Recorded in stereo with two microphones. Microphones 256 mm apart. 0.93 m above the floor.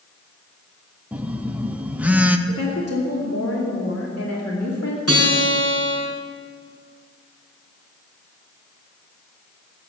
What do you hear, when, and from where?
1.1 s a phone buzzing: 5° right (ahead or behind), 0.6 m
2.5 s a woman speaking: 75° left (ahead or behind), 2.5 m
5.1 s a guitar: 65° left (ahead or behind), 5 m